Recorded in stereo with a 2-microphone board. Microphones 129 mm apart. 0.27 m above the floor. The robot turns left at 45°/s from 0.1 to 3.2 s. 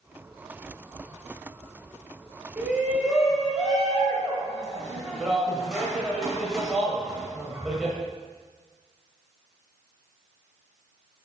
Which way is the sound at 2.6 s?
15° right (ahead or behind).